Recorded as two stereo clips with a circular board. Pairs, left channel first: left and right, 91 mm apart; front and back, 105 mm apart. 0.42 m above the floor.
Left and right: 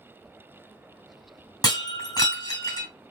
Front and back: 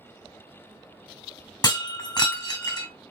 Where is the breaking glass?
50° left, 2 m.